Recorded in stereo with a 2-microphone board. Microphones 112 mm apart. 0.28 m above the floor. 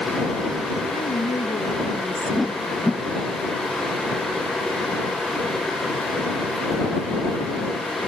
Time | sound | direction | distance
0.9 | a woman speaking | 70° left (ahead or behind) | ?
2.4 | a whoosh | centre (ahead or behind) | ?